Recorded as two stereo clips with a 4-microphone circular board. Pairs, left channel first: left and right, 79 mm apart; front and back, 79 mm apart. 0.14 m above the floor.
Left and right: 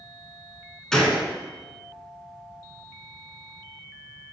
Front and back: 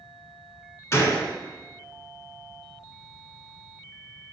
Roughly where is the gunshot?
Ahead.